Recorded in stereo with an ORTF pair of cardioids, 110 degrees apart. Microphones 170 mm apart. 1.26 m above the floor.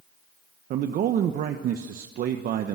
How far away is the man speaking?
About 1.3 m.